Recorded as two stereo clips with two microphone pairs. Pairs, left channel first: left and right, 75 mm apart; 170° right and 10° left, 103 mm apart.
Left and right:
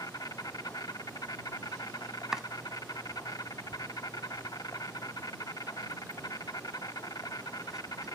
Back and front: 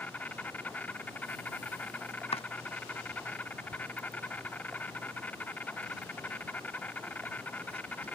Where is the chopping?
170° right.